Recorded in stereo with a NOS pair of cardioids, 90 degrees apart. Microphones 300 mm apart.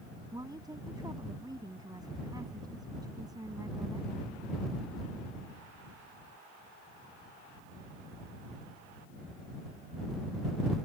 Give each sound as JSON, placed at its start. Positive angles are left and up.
{"t": 0.3, "sound": "a woman speaking", "azimuth_deg": -10}